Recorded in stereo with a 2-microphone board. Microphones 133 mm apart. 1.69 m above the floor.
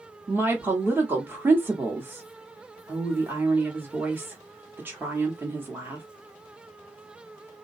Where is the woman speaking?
15° right (ahead or behind), 0.9 m.